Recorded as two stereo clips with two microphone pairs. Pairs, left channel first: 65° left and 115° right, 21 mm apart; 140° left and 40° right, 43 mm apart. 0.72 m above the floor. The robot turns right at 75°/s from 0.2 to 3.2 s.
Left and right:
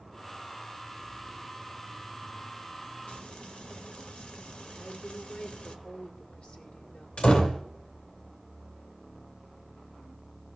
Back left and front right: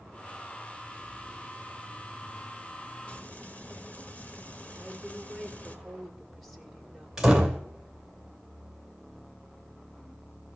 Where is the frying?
75° left, 1.3 m; by 5.8 s 85° left, 1.3 m.